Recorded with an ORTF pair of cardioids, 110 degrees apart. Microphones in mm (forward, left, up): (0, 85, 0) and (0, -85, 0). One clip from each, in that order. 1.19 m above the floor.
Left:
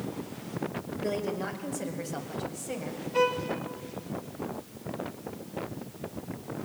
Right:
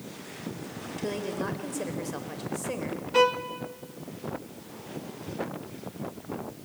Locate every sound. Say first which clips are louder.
1.0 s a woman speaking: even; 20° right, 5 m; by 3.0 s 35° right, 5 m
3.1 s a violin: right 4 dB; 70° right, 1.8 m